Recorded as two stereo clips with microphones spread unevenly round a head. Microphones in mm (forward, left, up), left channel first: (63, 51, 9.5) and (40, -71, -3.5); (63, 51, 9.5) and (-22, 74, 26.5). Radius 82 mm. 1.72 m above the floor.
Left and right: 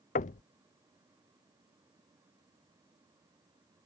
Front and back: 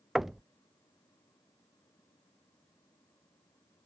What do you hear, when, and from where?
0.1 s knocking: 80° left